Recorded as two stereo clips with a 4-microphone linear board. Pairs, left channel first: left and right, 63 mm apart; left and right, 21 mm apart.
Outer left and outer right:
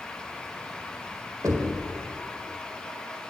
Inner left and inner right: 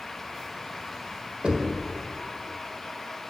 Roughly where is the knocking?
Right.